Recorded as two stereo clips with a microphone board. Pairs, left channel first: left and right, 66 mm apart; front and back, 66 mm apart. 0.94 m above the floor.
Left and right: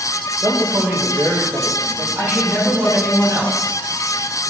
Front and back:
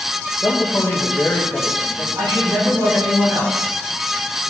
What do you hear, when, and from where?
0.4 s a man speaking: 55° right, 3.5 m
2.1 s a woman speaking: 155° right, 6 m